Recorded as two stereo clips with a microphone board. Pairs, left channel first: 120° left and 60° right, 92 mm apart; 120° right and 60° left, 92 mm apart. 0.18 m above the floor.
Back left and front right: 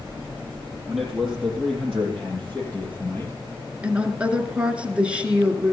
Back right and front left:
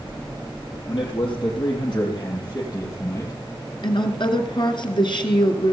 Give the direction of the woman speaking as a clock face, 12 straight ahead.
4 o'clock.